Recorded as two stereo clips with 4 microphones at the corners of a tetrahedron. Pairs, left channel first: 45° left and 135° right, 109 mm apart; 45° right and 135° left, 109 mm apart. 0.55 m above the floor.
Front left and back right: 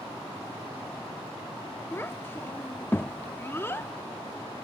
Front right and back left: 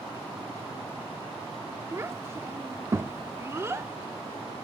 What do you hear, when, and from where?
1.9 s a child speaking: 95° left, 0.6 m